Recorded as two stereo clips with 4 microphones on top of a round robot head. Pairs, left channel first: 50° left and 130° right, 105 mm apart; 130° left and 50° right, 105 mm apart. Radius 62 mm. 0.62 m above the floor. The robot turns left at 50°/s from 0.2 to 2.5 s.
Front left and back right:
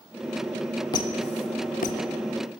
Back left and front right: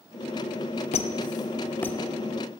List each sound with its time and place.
0.9 s a squeak: 105° left, 0.5 m; by 2.0 s 50° left, 0.5 m